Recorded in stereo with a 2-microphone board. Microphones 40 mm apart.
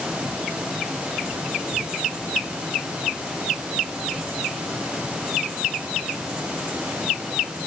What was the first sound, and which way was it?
Only background noise.